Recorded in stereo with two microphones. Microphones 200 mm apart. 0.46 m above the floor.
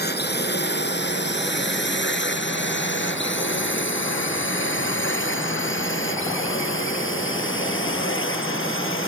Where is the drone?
55° left (ahead or behind); by 9.1 s 85° left.